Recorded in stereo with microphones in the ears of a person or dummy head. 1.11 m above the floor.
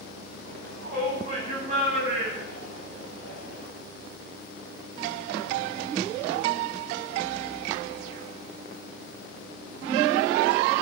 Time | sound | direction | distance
0.5 | a shout | 55° right (ahead or behind) | 10 m